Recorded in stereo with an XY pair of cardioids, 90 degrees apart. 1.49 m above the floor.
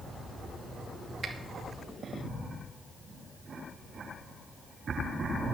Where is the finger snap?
60° right, 2 m.